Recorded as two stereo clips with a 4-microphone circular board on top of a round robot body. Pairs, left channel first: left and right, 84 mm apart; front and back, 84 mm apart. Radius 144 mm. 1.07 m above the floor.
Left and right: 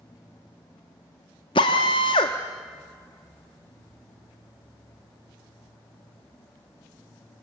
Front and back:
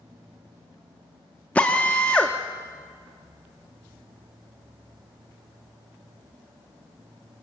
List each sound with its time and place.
1.6 s a drill: 75° left, 0.6 m